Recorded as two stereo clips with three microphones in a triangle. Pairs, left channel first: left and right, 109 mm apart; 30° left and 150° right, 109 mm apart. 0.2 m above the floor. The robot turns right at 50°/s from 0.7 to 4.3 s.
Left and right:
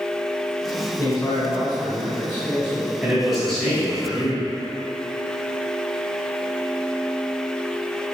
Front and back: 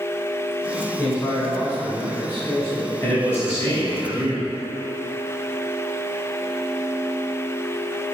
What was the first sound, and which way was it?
A man speaking, 70° left.